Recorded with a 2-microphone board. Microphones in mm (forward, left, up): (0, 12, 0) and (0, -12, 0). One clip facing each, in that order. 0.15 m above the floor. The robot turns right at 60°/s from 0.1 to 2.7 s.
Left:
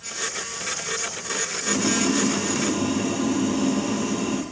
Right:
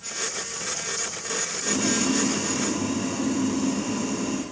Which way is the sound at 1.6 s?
20° right.